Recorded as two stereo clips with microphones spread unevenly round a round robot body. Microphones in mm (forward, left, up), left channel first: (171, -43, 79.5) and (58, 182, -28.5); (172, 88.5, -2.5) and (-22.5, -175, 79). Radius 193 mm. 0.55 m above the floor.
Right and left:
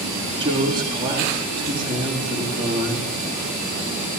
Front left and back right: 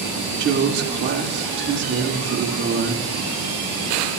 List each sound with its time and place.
0.4 s a woman speaking: 170° left, 1.9 m